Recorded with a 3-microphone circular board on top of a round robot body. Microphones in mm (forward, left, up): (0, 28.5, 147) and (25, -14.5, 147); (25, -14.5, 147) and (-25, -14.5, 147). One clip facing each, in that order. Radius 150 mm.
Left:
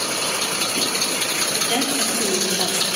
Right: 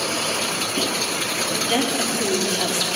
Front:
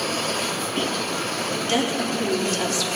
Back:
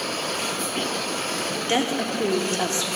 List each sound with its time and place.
1.7 s a woman speaking: 155° right, 1.6 m